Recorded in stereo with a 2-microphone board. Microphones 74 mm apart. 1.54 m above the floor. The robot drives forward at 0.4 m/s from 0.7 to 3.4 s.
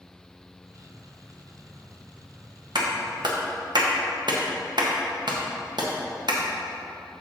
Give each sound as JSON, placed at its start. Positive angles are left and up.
{"t": 2.8, "sound": "a clap", "side_deg": -85, "distance_m": 1.2}